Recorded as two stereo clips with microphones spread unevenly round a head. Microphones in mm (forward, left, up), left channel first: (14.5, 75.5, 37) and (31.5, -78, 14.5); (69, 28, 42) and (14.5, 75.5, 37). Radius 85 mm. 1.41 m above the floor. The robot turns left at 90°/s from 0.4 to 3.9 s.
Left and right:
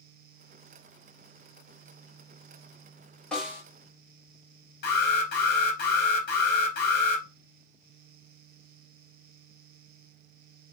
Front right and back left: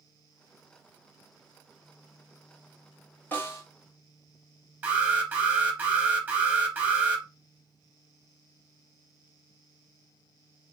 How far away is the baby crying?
No baby crying in this recording.